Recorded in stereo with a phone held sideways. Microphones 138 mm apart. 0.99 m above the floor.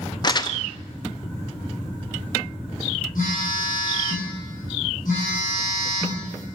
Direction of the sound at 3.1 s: 85° left.